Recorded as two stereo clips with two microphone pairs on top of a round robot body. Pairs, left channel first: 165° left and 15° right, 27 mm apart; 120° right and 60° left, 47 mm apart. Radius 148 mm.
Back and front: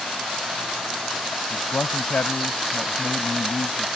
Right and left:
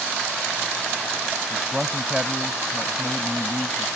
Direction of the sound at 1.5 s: 145° left.